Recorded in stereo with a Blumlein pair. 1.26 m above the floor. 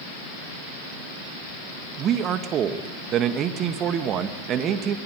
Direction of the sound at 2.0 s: 30° right.